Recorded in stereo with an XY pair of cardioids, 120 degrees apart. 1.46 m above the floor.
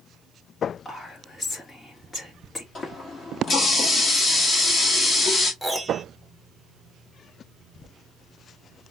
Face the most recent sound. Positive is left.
turn(degrees=5)